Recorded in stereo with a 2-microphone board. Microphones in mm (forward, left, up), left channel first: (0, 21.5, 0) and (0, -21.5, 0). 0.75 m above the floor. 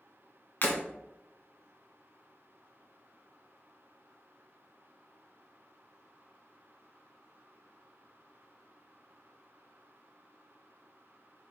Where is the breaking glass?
55° left (ahead or behind), 1.0 m.